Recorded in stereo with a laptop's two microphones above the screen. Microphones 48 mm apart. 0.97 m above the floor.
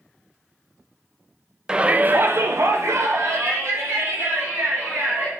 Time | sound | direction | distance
1.7 | a shout | 15° right (ahead or behind) | 0.5 m